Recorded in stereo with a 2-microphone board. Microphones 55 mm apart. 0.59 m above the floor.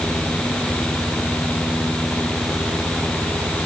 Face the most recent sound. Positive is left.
No sound to turn to.